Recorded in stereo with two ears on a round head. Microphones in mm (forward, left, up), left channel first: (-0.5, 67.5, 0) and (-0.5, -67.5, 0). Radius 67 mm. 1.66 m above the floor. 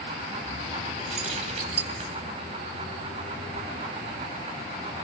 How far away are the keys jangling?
About 3.5 m.